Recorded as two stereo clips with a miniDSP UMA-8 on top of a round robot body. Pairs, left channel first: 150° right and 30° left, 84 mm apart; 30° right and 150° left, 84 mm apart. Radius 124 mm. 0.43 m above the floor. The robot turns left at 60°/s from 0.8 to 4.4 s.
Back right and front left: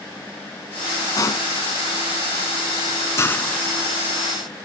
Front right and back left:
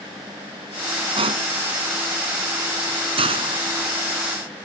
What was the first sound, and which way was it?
A pop, 165° left.